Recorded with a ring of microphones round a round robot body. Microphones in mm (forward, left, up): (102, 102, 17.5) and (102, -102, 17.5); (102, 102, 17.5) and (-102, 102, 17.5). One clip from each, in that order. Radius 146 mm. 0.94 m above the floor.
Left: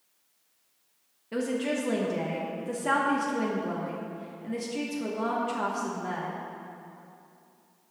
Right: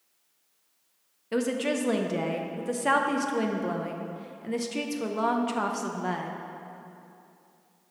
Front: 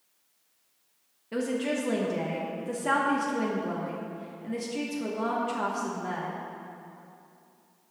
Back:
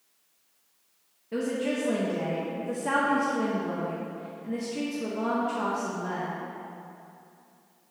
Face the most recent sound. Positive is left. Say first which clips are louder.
# right 2 dB, even
turn(degrees=-60)